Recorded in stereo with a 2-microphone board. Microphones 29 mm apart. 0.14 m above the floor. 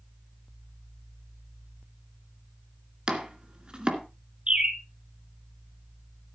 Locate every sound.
3.1 s chopping: 30° right (ahead or behind), 2 m
4.5 s a bird: 40° right (ahead or behind), 2 m